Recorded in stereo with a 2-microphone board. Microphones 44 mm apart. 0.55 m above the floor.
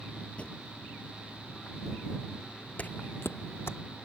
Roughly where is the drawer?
Left.